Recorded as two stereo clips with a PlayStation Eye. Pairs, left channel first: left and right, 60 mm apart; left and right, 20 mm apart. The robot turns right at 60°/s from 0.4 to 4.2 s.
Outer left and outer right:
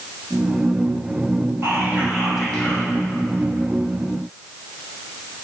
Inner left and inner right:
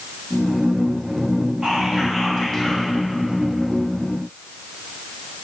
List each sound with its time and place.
1.6 s whispering: 45° right, 2.5 m; by 2.9 s 25° left, 2.5 m